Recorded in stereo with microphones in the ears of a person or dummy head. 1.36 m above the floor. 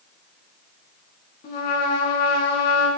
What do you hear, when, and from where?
1.4 s a trumpet: 55° left (ahead or behind), 3 m